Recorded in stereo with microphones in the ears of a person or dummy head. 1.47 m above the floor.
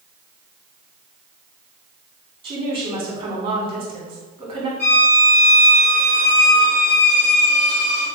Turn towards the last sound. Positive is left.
turn(degrees=50)  # may be behind; listen again after turning